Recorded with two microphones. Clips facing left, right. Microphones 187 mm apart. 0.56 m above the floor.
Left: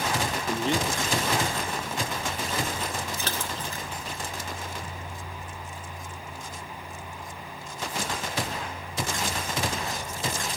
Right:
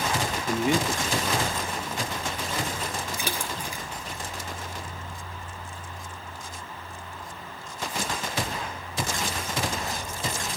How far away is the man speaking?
About 0.8 m.